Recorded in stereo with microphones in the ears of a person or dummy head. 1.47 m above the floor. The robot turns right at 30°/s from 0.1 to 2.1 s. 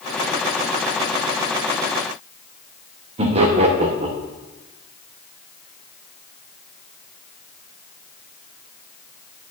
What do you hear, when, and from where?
3.2 s laughter: 30° right (ahead or behind), 0.9 m